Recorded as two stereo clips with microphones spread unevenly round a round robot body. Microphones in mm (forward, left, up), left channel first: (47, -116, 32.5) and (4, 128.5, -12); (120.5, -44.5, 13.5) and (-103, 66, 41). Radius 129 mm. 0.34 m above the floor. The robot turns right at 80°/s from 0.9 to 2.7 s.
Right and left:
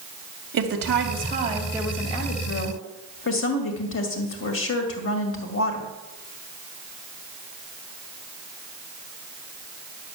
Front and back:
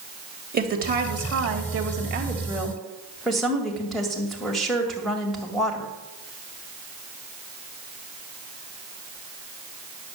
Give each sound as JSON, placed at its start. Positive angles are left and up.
{"t": 0.5, "sound": "a woman speaking", "azimuth_deg": 105, "distance_m": 2.0}